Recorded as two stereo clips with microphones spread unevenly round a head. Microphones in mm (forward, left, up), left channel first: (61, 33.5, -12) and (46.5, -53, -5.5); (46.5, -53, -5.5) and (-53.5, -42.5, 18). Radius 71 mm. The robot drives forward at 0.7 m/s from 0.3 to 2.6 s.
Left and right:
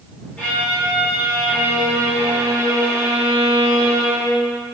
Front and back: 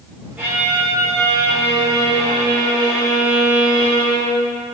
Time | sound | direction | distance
0.4 | a violin | 150° left | 1.5 m